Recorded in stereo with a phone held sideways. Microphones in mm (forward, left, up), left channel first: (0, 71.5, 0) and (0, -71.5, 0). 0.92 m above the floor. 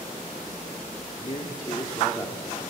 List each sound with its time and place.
1.2 s a man speaking: 50° left (ahead or behind), 1.5 m; by 2.6 s 5° left (ahead or behind), 2 m